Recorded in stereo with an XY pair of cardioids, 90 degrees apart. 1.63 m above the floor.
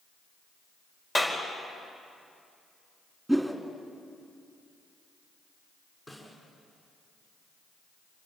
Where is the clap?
25° left, 4.5 m.